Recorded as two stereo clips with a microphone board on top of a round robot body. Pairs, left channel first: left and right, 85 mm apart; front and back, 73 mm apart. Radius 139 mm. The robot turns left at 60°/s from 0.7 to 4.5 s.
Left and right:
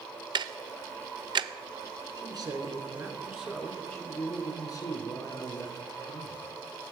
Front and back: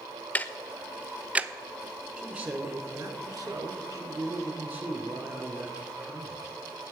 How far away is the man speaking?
About 2.5 m.